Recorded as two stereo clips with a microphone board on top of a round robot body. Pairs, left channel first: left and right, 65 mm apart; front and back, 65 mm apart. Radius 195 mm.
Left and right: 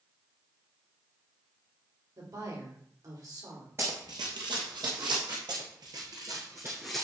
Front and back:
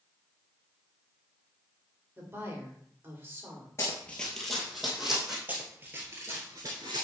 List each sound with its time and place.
2.2 s a woman speaking: 120° right, 2.5 m
3.8 s running footsteps: 45° right, 0.7 m; by 5.4 s 100° right, 2.5 m
5.5 s running footsteps: 115° right, 1.3 m; by 7.0 s 170° left, 0.7 m